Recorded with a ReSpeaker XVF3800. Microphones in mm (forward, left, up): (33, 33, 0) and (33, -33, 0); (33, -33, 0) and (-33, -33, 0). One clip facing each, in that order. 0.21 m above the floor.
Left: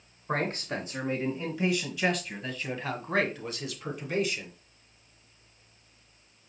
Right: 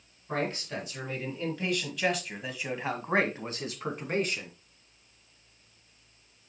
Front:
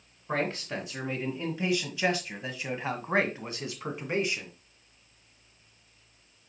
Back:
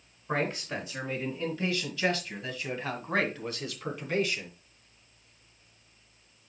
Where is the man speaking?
80° left, 2 m; by 4.5 s 60° right, 2.5 m.